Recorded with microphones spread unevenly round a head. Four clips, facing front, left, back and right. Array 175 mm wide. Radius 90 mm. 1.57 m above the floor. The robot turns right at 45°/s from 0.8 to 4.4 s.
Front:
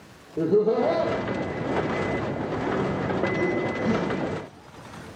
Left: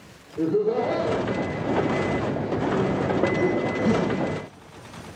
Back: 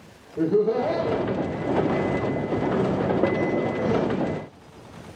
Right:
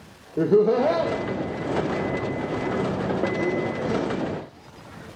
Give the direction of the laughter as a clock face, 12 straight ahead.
2 o'clock.